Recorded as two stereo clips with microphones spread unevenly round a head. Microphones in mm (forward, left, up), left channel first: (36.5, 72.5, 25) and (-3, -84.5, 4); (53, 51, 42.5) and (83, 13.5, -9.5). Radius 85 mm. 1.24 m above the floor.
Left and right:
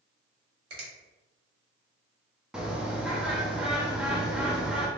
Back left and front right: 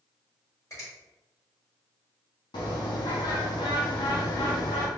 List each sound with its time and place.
0.7 s a finger snap: 160° right, 1.8 m
2.5 s a bird: 175° left, 0.6 m